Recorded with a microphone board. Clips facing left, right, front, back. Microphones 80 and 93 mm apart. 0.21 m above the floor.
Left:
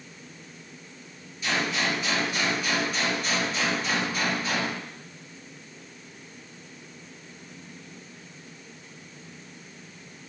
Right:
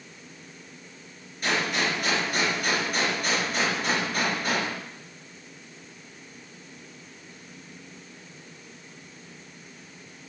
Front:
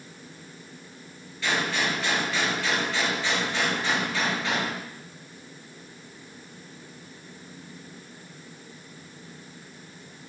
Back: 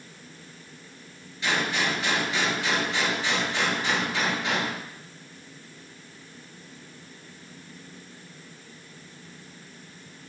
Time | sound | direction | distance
1.4 | a gunshot | 110° right | 4 m